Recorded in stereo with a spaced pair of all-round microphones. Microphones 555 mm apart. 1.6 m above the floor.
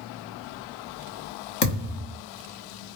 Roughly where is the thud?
Left.